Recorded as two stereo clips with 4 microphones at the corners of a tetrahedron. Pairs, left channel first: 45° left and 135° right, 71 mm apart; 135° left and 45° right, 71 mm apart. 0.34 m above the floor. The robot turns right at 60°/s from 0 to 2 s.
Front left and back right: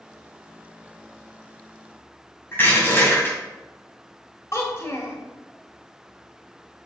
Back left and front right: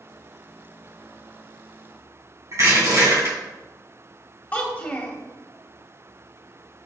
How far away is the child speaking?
About 1.2 m.